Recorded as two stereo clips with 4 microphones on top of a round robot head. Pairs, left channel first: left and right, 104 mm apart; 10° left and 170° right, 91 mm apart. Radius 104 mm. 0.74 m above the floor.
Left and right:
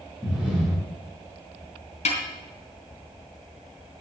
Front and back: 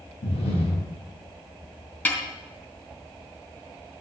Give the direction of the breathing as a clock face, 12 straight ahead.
12 o'clock.